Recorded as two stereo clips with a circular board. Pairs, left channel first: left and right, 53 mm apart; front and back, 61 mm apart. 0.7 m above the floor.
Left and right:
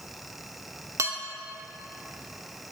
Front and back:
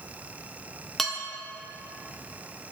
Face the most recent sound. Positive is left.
turn(degrees=-85)